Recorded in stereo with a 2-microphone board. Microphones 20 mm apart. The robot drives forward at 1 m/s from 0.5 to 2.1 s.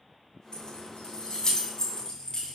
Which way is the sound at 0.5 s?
65° left (ahead or behind).